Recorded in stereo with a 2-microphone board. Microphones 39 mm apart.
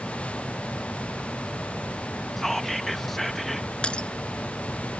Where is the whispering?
5° left (ahead or behind).